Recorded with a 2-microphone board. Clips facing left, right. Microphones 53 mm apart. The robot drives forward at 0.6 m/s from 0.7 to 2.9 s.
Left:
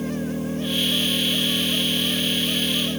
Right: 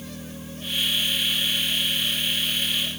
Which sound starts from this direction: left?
An engine running, at 0.0 s.